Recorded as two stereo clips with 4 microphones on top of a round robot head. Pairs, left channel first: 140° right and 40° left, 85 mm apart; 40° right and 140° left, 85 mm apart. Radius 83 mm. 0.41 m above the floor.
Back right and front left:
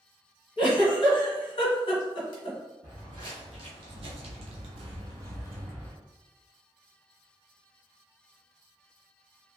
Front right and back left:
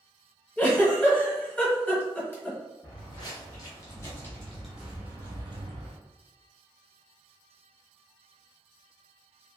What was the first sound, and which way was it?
A giggle, 110° right.